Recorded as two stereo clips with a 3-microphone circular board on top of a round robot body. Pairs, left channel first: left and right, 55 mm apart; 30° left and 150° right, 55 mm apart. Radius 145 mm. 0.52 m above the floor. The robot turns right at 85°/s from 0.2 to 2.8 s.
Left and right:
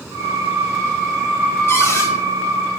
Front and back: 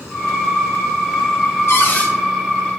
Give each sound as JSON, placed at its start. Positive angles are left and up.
{"t": 1.7, "sound": "a cupboard door", "azimuth_deg": 60, "distance_m": 1.7}